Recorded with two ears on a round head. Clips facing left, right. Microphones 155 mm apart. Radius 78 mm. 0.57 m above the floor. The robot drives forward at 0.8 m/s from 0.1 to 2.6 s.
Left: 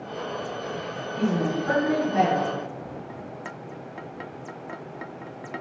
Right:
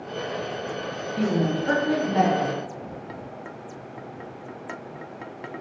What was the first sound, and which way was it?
A woman speaking, 40° right (ahead or behind).